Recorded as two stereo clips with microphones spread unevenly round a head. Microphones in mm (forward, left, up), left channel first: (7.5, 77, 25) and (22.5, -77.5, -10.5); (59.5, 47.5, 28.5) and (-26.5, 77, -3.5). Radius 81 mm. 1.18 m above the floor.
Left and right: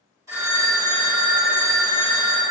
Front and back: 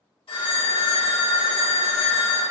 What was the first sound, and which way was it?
A phone ringing, 10° right.